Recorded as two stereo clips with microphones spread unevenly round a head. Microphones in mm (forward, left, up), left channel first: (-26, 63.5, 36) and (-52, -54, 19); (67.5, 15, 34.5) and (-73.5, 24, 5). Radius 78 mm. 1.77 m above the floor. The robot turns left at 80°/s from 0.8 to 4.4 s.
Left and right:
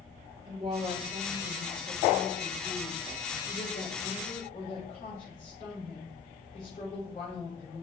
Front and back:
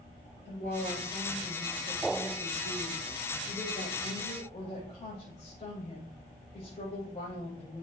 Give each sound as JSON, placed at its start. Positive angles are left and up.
{"t": 0.5, "sound": "a woman speaking", "azimuth_deg": -30, "distance_m": 7.0}